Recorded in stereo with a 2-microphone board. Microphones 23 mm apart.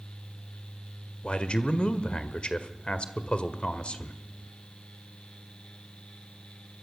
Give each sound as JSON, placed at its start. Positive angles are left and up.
{"t": 1.2, "sound": "a man speaking", "side_deg": 50, "distance_m": 1.7}